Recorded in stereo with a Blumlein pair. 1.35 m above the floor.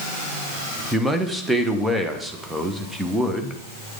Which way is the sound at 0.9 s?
5° right.